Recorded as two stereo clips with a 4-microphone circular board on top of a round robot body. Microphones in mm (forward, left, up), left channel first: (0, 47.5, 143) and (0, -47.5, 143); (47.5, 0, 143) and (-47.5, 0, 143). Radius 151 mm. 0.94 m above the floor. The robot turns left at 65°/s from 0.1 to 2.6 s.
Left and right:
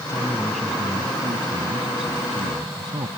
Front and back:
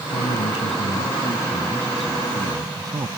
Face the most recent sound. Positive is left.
turn(degrees=-130)